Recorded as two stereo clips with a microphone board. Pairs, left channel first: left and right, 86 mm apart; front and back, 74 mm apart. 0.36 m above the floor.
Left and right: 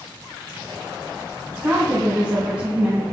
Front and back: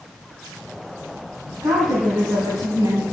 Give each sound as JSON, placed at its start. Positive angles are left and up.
{"t": 1.6, "sound": "a woman speaking", "azimuth_deg": -165, "distance_m": 3.0}